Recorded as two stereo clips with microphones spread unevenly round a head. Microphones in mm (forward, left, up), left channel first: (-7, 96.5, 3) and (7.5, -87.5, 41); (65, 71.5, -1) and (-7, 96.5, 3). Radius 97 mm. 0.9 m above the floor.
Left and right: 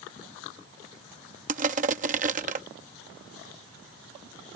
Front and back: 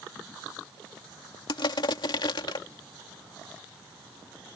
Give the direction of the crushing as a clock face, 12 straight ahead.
1 o'clock.